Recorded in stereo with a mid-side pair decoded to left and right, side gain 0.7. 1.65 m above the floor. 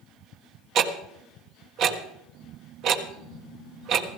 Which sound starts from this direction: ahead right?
Ticking, at 0.8 s.